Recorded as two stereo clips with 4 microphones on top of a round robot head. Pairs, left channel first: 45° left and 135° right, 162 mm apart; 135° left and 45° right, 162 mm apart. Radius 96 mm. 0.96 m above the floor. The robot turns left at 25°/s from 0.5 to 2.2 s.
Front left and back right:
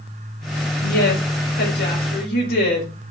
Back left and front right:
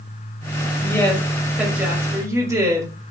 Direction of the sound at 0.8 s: 60° left.